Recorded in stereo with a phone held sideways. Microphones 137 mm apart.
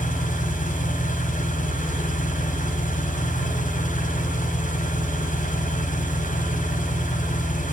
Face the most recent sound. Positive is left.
turn(degrees=70)  # may be behind; listen again after turning